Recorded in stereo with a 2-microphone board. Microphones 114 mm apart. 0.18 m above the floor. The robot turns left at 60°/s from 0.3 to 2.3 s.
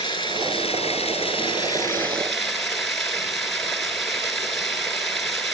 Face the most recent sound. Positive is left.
turn(degrees=0)